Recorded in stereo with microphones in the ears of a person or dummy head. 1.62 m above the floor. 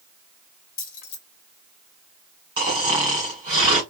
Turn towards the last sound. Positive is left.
turn(degrees=-25)  # may be behind; listen again after turning